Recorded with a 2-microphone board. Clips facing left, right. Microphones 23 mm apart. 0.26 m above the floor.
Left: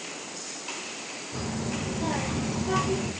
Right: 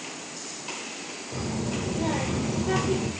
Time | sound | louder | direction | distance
1.3 | a child speaking | right 2 dB | 15° right (ahead or behind) | 5.5 m